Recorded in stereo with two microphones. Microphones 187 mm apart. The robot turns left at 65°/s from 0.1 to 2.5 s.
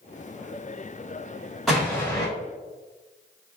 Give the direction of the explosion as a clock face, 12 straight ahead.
6 o'clock.